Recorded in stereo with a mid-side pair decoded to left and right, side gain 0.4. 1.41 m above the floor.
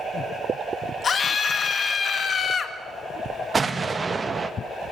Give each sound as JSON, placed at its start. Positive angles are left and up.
{"t": 1.0, "sound": "a scream", "azimuth_deg": 50, "distance_m": 2.0}
{"t": 3.5, "sound": "an explosion", "azimuth_deg": -35, "distance_m": 1.2}